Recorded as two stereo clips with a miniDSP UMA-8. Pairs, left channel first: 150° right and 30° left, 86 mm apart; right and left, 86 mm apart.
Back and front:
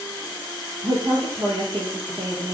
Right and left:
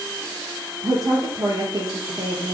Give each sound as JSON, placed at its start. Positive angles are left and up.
{"t": 0.8, "sound": "a woman speaking", "azimuth_deg": 40, "distance_m": 7.0}